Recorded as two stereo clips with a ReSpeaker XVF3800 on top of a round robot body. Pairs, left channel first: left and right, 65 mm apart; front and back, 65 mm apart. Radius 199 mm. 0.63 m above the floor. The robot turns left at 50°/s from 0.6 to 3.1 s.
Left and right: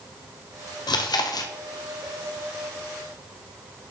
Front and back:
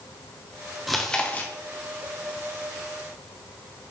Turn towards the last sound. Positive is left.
turn(degrees=-20)